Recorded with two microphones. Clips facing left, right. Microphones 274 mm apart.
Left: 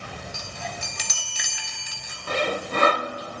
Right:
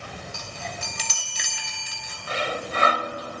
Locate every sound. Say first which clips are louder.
0.3 s a chime: left 1 dB; 35° right (ahead or behind), 2.5 m
2.3 s sawing: left 4 dB; 50° left (ahead or behind), 0.8 m